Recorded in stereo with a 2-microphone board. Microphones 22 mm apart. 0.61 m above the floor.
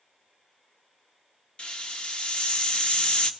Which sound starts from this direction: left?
A hiss, at 1.6 s.